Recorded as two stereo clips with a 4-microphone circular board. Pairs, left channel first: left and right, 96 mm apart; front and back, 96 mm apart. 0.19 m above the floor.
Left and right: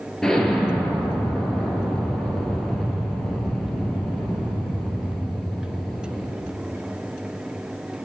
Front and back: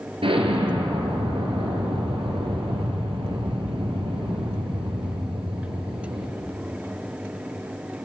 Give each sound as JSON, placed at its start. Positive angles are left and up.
{"t": 0.2, "sound": "an explosion", "azimuth_deg": 170, "distance_m": 3.0}